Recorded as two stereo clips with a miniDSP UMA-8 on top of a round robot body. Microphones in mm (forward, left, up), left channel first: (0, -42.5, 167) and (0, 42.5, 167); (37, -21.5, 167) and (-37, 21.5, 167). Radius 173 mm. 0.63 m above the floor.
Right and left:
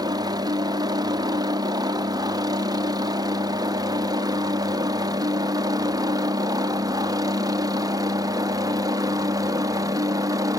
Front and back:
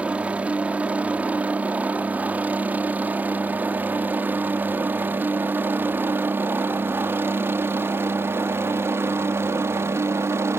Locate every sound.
0.0 s a helicopter: 80° left; by 10.6 s 105° left